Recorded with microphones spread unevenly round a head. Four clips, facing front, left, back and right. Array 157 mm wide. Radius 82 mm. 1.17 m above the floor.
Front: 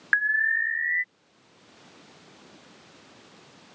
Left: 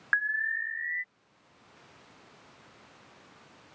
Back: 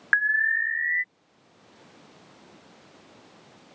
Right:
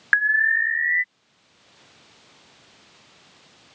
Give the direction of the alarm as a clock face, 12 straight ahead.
3 o'clock.